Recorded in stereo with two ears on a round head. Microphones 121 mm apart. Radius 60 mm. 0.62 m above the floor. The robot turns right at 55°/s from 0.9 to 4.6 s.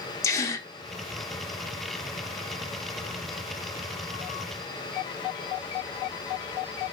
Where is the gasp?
25° left (ahead or behind), 1.0 m.